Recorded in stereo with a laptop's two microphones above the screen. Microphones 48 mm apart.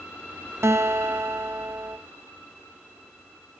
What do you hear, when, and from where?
0.6 s a guitar: 65° right (ahead or behind), 0.9 m